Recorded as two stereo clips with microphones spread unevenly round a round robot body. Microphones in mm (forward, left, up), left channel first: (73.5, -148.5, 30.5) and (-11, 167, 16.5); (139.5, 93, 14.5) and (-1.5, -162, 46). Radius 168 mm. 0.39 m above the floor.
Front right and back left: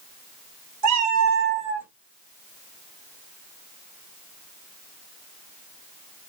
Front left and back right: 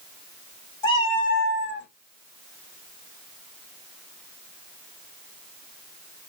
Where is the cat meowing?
135° left, 1.0 m; by 1.9 s 20° left, 0.9 m.